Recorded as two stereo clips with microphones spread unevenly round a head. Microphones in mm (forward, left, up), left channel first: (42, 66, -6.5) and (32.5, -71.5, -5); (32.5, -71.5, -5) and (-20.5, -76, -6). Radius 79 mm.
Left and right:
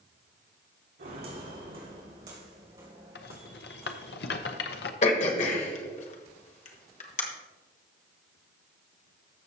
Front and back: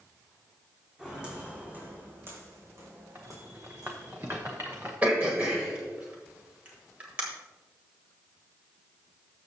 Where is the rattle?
110° left, 0.7 m.